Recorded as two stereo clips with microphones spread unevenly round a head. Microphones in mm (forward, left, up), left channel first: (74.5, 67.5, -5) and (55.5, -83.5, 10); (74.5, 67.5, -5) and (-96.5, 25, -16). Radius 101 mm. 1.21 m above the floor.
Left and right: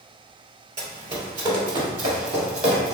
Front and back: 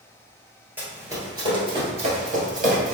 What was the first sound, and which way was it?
Running footsteps, 85° right.